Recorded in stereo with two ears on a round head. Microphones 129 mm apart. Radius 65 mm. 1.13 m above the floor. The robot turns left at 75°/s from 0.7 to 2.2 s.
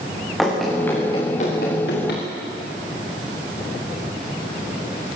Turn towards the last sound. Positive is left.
turn(degrees=65)  # may be behind; listen again after turning